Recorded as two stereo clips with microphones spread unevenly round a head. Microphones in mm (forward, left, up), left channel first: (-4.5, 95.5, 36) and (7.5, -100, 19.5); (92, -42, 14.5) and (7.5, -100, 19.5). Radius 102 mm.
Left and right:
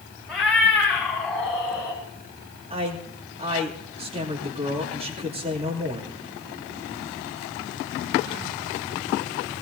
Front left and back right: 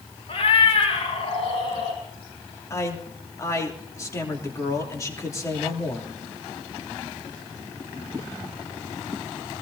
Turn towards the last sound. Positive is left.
turn(degrees=-25)